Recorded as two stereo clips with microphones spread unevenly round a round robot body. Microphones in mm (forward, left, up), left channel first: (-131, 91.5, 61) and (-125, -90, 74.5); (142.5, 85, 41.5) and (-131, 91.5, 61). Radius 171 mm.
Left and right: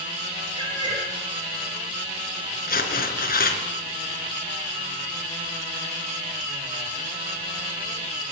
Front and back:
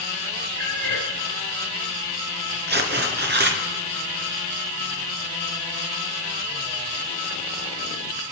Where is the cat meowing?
145° right, 3.5 m.